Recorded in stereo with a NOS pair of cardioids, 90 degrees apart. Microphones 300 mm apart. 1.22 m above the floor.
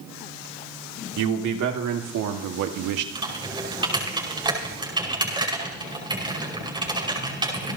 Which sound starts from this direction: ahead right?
A man speaking, at 1.2 s.